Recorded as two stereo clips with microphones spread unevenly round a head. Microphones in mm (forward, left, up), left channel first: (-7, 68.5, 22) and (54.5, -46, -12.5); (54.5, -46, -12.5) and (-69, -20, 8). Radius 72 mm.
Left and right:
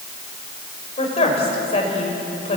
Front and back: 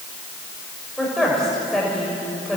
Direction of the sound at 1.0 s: 80° left.